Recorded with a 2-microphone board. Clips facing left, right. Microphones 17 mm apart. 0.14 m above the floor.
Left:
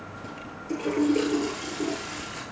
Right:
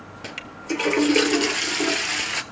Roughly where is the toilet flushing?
Right.